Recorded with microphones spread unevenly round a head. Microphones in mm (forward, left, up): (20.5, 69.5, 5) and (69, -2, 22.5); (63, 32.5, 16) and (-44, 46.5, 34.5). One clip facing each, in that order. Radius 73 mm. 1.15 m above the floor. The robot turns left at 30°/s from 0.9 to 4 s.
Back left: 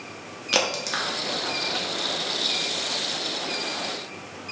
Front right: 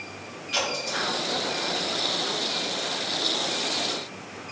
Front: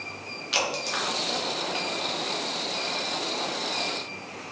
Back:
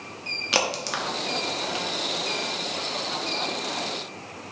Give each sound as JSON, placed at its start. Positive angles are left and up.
{"t": 0.5, "sound": "a crack", "azimuth_deg": 150, "distance_m": 0.7}